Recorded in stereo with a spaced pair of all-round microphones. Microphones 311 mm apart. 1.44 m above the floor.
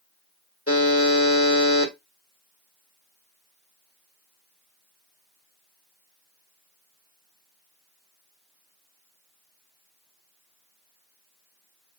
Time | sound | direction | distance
0.7 | a buzzer | 45° left (ahead or behind) | 1.5 m